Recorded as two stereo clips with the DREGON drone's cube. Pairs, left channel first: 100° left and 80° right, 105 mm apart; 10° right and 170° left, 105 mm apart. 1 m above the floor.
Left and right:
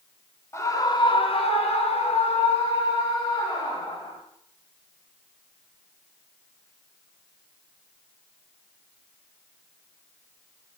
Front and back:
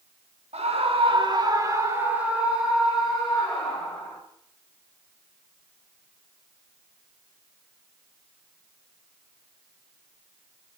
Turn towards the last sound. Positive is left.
turn(degrees=70)